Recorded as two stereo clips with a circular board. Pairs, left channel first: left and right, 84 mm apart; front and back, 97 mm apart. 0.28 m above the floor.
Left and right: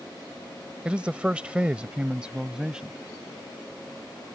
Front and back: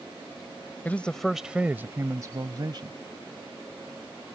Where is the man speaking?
30° right; by 3.0 s 165° right.